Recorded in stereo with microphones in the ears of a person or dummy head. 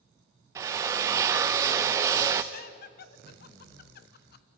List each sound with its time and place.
0.6 s a drill: 15° right (ahead or behind), 0.5 m
2.5 s laughter: 50° left (ahead or behind), 0.9 m